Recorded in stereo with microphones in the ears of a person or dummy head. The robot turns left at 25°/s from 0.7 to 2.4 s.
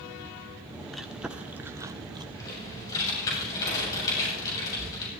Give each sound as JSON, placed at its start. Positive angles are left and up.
{"t": 0.9, "sound": "chewing", "side_deg": 0, "distance_m": 0.9}
{"t": 2.4, "sound": "typing on a keyboard", "side_deg": 20, "distance_m": 8.5}